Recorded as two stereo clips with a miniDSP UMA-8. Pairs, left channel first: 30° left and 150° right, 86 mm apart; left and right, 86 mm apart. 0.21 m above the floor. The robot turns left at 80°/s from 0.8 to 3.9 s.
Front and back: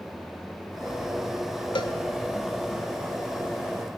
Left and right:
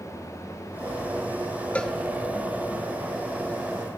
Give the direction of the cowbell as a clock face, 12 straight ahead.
11 o'clock.